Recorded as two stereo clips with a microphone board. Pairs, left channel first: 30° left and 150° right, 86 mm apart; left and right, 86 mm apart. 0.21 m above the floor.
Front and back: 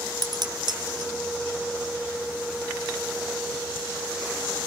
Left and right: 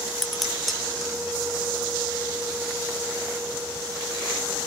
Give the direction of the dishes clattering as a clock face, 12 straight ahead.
6 o'clock.